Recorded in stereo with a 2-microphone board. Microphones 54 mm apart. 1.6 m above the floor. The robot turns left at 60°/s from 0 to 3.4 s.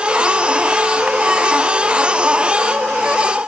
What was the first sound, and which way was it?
Only background noise.